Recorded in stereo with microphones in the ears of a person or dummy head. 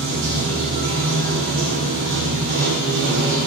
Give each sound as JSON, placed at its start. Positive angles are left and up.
{"t": 0.0, "sound": "running water", "side_deg": -55, "distance_m": 1.1}